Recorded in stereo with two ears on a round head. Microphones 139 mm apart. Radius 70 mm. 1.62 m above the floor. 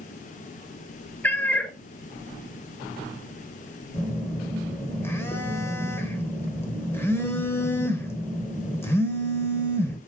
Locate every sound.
1.2 s a cat meowing: 10° left (ahead or behind), 0.8 m
3.9 s a phone buzzing: 15° left (ahead or behind), 1.4 m